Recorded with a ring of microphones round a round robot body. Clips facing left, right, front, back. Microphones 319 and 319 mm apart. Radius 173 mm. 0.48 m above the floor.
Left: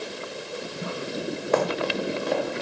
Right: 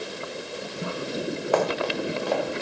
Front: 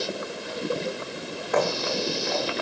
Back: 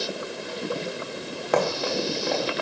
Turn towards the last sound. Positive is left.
turn(degrees=155)